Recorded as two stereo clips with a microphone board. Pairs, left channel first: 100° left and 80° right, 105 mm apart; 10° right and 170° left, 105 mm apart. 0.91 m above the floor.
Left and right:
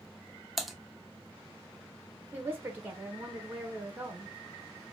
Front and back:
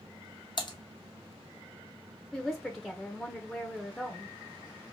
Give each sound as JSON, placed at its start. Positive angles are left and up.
{"t": 0.6, "sound": "typing on a keyboard", "azimuth_deg": 10, "distance_m": 0.6}
{"t": 2.3, "sound": "a woman speaking", "azimuth_deg": -95, "distance_m": 0.6}